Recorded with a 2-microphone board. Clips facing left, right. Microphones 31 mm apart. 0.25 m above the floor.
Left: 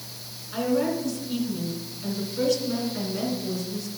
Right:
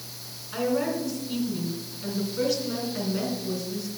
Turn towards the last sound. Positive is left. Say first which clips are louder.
# left 1 dB
turn(degrees=-10)  # may be behind; listen again after turning